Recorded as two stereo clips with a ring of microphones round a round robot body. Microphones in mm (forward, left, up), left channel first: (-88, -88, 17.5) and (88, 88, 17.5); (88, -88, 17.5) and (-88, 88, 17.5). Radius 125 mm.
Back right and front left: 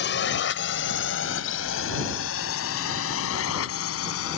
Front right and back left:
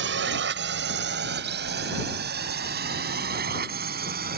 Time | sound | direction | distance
0.0 | a drone | straight behind | ?